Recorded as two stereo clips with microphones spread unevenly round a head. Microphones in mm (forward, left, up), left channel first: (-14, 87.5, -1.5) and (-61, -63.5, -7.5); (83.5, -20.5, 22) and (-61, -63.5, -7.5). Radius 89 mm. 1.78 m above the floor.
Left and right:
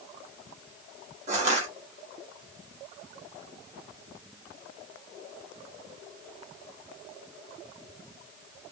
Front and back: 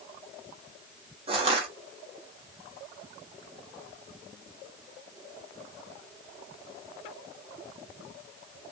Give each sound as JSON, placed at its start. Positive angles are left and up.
{"t": 1.3, "sound": "crushing", "azimuth_deg": -120, "distance_m": 1.4}